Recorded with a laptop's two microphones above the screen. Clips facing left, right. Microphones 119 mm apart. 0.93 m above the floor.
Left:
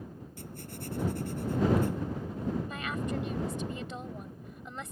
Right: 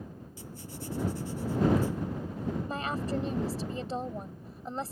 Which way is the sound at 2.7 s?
35° right (ahead or behind).